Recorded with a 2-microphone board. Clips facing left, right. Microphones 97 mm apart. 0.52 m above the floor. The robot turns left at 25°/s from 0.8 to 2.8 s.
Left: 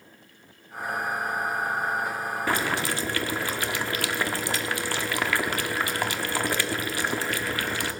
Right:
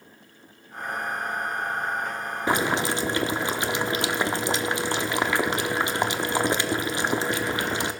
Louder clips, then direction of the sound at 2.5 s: Right 4 dB; 20° right (ahead or behind).